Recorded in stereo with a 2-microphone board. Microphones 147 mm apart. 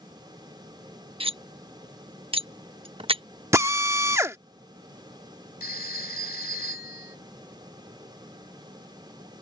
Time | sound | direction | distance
1.2 | cutlery clinking | 35° right (ahead or behind) | ?
3.5 | a drill | 20° right (ahead or behind) | ?
5.6 | a phone ringing | 70° left (ahead or behind) | ?